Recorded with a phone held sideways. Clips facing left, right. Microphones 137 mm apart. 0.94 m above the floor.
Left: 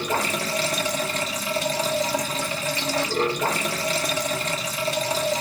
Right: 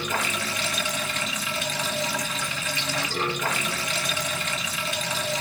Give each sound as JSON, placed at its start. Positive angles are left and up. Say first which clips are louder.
{"t": 0.0, "sound": "running water", "louder": "left 4 dB", "side_deg": 35, "distance_m": 1.1}